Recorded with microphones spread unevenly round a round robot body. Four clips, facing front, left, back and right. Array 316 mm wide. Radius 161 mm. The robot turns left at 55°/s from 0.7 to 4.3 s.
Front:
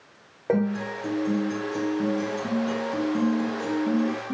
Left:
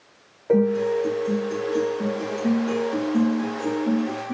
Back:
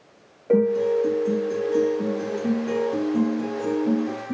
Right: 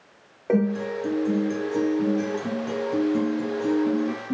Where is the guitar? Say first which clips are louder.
Left 4 dB, back 6 dB; 15° right, 1.6 m; by 4.3 s 145° left, 1.6 m.